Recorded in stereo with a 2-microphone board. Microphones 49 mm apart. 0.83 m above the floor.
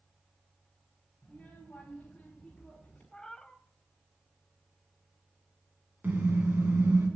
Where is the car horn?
45° right (ahead or behind), 3.5 m.